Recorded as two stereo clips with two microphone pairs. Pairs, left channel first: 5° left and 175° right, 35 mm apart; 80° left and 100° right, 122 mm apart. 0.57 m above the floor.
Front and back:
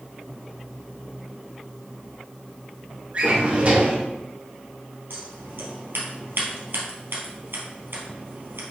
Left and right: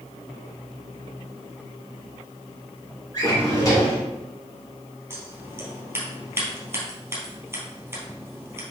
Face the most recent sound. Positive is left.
turn(degrees=-175)